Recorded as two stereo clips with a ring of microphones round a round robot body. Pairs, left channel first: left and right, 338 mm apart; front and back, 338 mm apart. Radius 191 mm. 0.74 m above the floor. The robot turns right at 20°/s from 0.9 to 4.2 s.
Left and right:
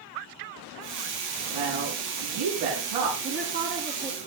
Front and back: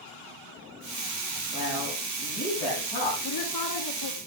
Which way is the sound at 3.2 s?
35° right.